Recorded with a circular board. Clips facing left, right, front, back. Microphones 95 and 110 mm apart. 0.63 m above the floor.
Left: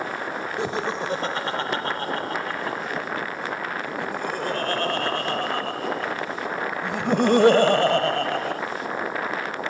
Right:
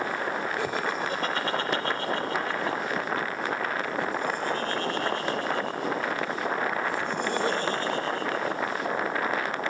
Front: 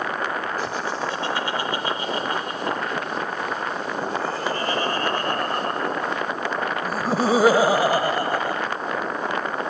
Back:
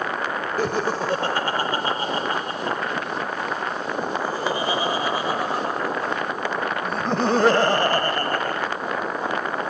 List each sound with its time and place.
0.6 s laughter: 155° left; by 8.6 s 75° left